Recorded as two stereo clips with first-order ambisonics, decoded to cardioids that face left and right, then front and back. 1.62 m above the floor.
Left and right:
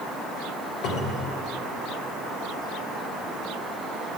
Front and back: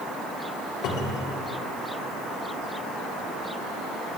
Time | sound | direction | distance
0.8 | a cupboard door | 45° left | 2 m